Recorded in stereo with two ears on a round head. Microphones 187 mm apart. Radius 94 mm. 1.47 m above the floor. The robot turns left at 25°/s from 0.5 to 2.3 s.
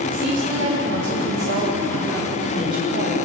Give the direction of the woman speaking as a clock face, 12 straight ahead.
3 o'clock.